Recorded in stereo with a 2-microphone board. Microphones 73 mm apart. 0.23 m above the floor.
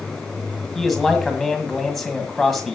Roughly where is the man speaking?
Centre.